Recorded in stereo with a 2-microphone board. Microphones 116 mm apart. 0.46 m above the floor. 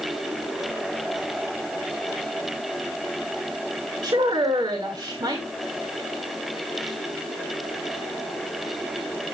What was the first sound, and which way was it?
A woman speaking, 40° right (ahead or behind).